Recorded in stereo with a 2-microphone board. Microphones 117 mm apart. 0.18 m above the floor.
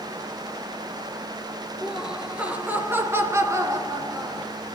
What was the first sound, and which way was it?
Laughter, 5° right (ahead or behind).